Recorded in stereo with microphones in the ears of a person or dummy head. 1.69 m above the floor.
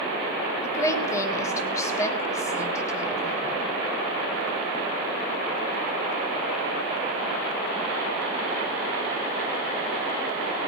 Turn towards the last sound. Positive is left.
turn(degrees=20)  # may be behind; listen again after turning